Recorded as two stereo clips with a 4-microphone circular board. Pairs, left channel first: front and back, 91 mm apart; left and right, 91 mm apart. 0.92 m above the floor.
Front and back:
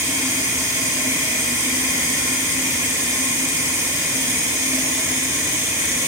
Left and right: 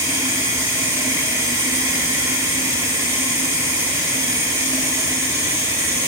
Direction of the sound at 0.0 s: 135° right.